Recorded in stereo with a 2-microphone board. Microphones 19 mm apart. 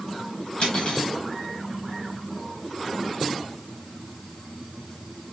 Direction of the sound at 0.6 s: 60° left (ahead or behind).